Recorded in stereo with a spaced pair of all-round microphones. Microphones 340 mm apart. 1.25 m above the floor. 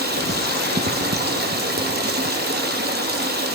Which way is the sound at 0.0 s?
25° right (ahead or behind).